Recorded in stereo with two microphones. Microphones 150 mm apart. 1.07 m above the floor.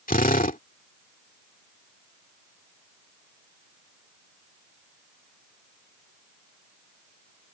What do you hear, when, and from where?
0.1 s a drill: 80° left